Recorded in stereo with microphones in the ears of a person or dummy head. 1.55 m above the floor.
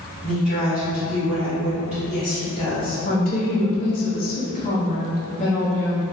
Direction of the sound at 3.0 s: 45° left (ahead or behind).